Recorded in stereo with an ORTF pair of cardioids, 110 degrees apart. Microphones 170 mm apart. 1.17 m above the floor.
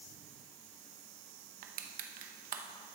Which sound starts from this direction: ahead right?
Crushing, at 1.6 s.